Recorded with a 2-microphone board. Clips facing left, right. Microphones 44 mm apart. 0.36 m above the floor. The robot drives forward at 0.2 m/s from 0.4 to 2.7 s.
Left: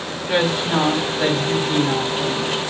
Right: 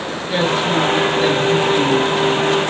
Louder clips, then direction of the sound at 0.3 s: Right 2 dB; 15° left (ahead or behind).